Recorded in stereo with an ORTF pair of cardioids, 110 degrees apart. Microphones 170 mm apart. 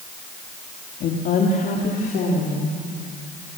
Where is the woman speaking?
60° left, 2.5 m; by 2.8 s 55° left, 4.5 m.